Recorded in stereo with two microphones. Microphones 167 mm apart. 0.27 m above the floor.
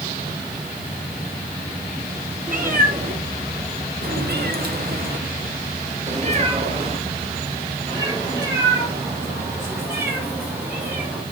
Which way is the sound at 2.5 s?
55° right (ahead or behind).